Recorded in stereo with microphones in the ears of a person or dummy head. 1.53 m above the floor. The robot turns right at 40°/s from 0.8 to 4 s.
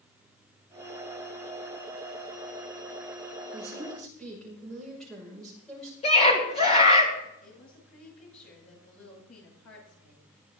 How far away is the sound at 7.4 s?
About 9 m.